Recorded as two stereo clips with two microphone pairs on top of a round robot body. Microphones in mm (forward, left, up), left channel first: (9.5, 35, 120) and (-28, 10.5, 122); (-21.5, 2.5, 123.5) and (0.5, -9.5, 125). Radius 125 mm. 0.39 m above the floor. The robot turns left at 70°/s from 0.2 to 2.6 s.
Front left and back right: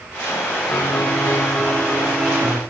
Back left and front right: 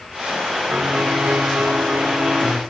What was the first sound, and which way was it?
A piano, 30° left.